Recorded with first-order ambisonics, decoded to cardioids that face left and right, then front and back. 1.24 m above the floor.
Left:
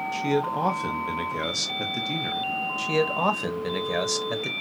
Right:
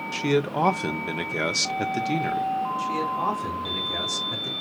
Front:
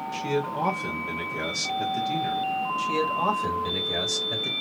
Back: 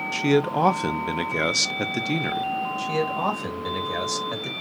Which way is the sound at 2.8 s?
95° left.